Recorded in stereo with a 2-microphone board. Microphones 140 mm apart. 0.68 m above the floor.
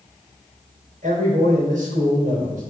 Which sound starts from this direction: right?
A man speaking, at 1.0 s.